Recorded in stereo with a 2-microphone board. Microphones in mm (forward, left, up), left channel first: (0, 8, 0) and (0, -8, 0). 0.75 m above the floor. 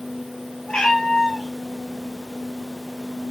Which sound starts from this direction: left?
A cat meowing, at 0.7 s.